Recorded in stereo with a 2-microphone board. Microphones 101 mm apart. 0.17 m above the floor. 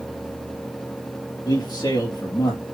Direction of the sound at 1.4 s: 40° left (ahead or behind).